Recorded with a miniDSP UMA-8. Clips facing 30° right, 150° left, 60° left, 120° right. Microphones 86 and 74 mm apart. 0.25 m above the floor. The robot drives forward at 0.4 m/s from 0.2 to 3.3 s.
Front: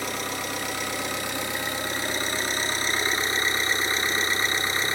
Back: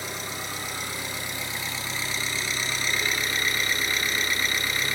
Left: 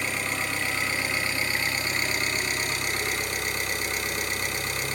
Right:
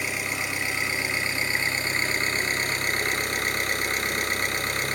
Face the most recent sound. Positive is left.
turn(degrees=-90)